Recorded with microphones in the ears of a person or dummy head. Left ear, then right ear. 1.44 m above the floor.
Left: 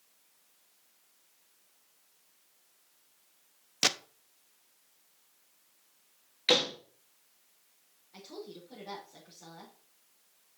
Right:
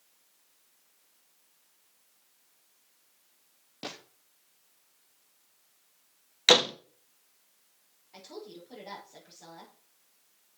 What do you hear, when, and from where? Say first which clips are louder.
3.8 s a gunshot: left 13 dB; 60° left (ahead or behind), 0.8 m
6.5 s a door slam: right 5 dB; 45° right (ahead or behind), 0.8 m
8.1 s a woman speaking: right 1 dB; 30° right (ahead or behind), 5 m